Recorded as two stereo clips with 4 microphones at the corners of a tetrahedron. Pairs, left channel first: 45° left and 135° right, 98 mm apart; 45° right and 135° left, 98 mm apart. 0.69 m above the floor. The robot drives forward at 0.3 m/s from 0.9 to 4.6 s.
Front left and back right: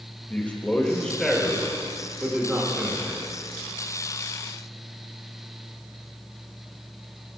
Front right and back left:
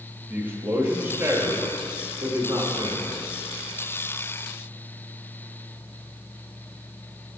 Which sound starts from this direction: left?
A man speaking, at 0.3 s.